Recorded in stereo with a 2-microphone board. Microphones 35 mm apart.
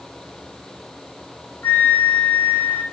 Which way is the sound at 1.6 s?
70° left (ahead or behind).